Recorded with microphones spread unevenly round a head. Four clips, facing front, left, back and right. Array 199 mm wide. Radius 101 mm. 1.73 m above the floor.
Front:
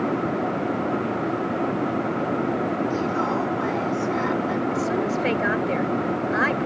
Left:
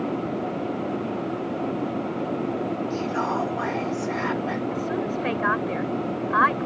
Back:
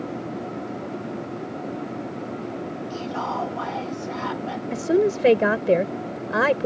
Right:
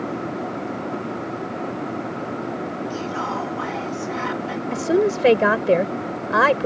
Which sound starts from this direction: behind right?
A woman speaking, at 4.7 s.